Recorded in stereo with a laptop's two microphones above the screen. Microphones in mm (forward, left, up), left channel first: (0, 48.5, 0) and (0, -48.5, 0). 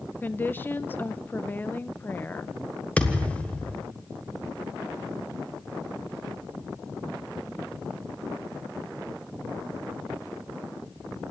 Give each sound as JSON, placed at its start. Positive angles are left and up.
{"t": 0.2, "sound": "a woman speaking", "side_deg": 20, "distance_m": 0.7}
{"t": 3.0, "sound": "a thud", "side_deg": 15, "distance_m": 1.6}